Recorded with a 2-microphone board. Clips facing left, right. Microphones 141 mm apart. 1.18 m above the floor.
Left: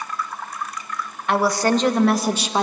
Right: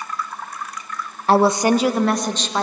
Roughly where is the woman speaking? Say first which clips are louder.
Right 4 dB; right.